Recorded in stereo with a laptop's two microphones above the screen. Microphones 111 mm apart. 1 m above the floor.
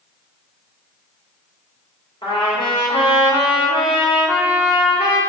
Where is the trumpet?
45° left (ahead or behind), 3 m.